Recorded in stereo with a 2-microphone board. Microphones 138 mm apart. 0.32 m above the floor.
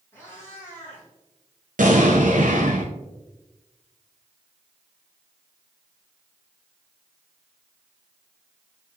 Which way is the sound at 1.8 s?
80° right.